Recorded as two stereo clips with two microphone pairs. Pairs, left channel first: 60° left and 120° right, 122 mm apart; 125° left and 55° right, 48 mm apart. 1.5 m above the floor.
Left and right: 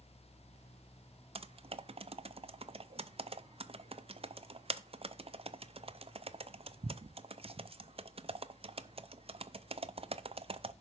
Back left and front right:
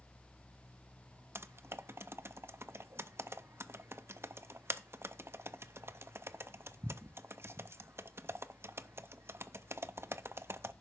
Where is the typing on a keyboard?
85° right, 0.5 m.